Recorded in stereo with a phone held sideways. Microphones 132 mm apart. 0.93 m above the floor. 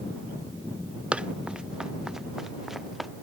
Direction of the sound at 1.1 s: 10° right (ahead or behind).